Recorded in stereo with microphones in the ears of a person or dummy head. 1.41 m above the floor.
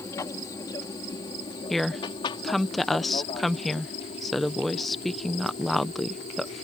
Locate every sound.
0.0 s an aircraft: 15° left (ahead or behind); by 6.6 s 35° left (ahead or behind)
1.7 s a woman speaking: centre (ahead or behind)